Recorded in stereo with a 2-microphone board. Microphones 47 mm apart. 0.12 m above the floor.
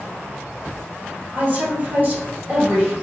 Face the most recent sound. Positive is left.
turn(degrees=-45)  # may be behind; listen again after turning